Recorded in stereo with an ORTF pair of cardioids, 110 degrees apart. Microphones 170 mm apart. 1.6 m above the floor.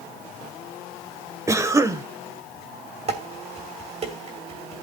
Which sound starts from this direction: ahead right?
Dishes clattering, at 3.1 s.